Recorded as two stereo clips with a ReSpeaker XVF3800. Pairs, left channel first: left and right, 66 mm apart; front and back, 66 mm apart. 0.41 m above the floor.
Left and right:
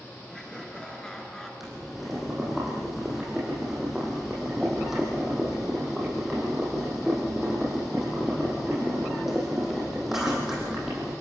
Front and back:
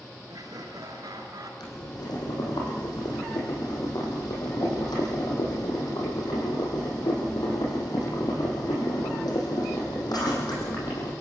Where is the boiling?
5° right, 7 m.